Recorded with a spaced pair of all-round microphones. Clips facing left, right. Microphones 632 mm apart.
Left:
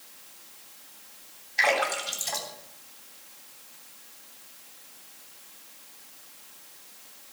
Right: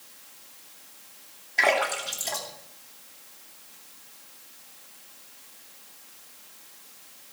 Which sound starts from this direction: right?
A splash, at 1.6 s.